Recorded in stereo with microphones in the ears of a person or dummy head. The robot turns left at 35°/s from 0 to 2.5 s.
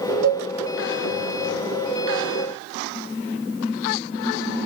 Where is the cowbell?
50° right (ahead or behind), 1.0 m; by 0.4 s 55° right (ahead or behind), 1.0 m.